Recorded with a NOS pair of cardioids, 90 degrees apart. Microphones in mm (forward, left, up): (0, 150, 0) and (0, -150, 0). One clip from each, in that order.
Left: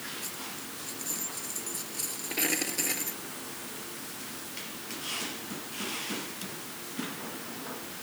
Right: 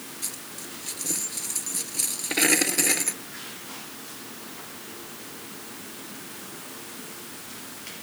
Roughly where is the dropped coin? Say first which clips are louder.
Right 1 dB; ahead right.